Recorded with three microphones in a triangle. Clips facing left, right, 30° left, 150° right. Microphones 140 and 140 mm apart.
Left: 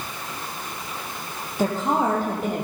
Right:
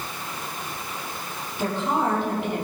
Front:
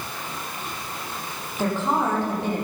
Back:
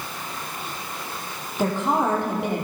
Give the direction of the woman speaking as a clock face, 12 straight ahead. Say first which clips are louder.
Left 2 dB, back 1 dB; 7 o'clock.